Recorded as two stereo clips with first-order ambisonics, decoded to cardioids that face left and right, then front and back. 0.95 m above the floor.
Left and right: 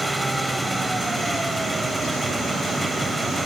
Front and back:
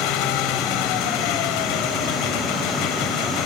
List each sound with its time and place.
0.0 s an engine running: 5° right